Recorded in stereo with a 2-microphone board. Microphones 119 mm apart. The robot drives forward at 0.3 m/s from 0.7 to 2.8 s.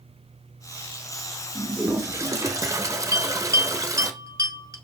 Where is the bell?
30° right (ahead or behind), 1.0 m.